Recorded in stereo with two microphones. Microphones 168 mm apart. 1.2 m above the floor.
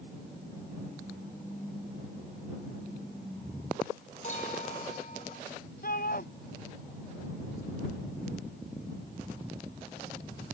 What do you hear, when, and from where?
4.2 s a clink: 45° left (ahead or behind)
5.8 s a shout: 60° left (ahead or behind)